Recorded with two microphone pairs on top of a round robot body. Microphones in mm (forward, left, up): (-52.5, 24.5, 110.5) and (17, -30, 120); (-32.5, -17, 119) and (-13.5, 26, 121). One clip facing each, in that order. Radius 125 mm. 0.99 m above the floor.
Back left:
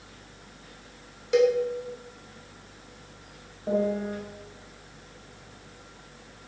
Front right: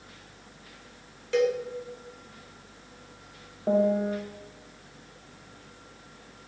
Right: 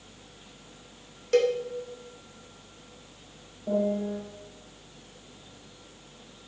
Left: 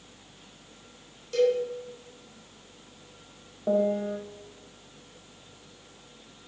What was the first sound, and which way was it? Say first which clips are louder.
A cowbell: back left 4 dB, even; 145° right.